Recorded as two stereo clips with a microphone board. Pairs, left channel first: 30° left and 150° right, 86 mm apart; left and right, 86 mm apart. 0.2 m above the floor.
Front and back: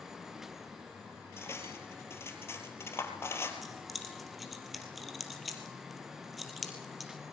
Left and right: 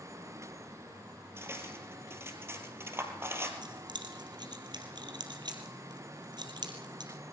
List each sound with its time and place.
1.4 s cutlery clinking: 30° right, 3 m
3.6 s keys jangling: 60° right, 3 m